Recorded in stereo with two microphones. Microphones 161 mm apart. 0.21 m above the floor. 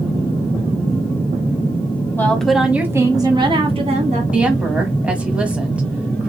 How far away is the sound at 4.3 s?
About 1.2 m.